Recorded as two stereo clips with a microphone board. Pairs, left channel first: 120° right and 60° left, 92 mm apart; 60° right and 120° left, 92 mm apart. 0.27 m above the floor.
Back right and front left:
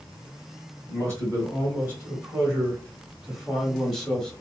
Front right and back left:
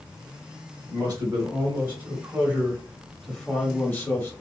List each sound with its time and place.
0.9 s a man speaking: 110° left, 1.8 m; by 4.3 s 45° right, 1.5 m